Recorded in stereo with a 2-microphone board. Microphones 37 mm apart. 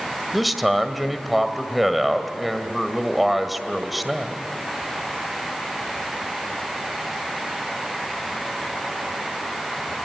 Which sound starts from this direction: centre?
A man speaking, at 0.3 s.